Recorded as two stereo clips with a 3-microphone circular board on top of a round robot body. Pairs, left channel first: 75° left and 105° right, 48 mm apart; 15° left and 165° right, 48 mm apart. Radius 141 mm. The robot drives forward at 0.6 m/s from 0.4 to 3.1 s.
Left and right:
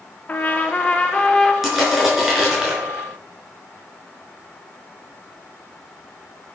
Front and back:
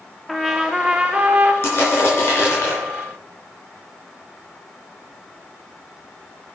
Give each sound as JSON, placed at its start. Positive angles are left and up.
{"t": 0.3, "sound": "a trumpet", "azimuth_deg": 105, "distance_m": 1.0}
{"t": 1.6, "sound": "crushing", "azimuth_deg": -25, "distance_m": 5.0}